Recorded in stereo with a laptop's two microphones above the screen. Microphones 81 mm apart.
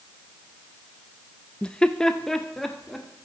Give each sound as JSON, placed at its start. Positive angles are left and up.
{"t": 1.6, "sound": "laughter", "side_deg": 15, "distance_m": 0.5}